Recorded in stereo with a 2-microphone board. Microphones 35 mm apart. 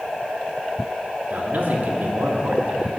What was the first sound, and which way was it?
A man speaking, 55° right (ahead or behind).